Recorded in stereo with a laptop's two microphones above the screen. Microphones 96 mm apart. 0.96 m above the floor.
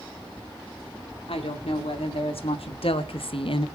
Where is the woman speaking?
80° left, 2 m; by 3.7 s 65° left (ahead or behind), 0.6 m.